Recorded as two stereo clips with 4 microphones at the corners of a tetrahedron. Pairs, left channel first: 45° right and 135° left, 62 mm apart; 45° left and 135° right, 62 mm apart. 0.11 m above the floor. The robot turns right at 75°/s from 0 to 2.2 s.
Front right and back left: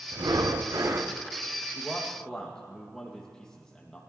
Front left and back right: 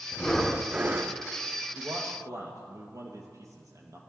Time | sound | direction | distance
0.1 | breathing | 110° left | 1.2 m
1.8 | a man speaking | 155° right | 3 m